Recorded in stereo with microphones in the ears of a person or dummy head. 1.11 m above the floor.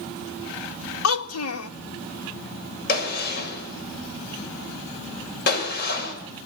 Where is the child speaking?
75° left (ahead or behind), 1.2 m.